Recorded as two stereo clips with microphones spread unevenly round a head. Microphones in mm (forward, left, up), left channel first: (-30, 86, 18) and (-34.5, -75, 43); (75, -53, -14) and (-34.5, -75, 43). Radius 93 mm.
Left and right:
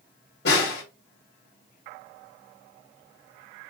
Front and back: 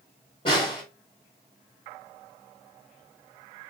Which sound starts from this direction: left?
A snare drum, at 0.5 s.